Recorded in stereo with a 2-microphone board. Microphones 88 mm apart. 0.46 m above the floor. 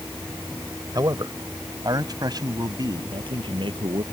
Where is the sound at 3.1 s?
70° right (ahead or behind).